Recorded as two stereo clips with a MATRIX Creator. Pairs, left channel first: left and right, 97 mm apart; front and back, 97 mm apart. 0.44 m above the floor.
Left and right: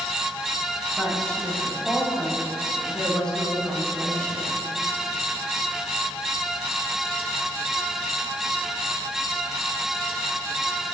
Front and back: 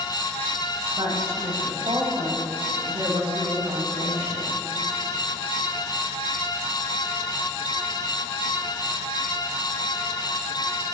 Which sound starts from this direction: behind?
A woman speaking, at 1.0 s.